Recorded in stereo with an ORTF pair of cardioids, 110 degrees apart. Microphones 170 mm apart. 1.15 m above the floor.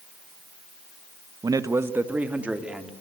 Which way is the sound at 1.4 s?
20° right.